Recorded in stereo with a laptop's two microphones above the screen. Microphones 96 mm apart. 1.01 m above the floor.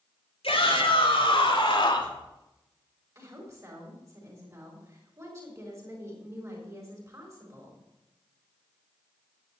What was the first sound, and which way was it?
A shout, 75° left (ahead or behind).